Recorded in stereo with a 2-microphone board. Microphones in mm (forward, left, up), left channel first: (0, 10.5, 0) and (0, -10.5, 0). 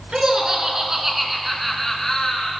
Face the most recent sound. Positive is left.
turn(degrees=30)  # may be behind; listen again after turning